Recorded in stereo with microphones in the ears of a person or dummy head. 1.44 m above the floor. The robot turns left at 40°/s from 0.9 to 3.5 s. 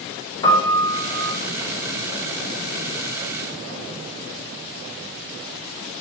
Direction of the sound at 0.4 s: 25° left (ahead or behind).